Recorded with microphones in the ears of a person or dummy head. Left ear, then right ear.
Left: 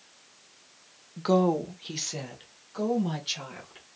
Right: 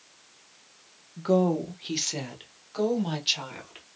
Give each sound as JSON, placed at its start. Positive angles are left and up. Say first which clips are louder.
{"t": 1.2, "sound": "a woman speaking", "louder": "even", "side_deg": 35, "distance_m": 0.5}